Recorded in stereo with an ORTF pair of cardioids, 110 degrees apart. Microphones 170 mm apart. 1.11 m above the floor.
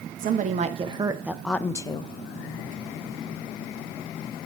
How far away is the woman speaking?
About 1.0 m.